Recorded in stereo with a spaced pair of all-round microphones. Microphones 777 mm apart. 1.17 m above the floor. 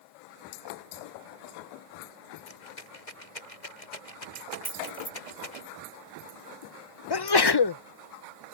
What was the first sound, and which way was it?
A rattle, 65° left (ahead or behind).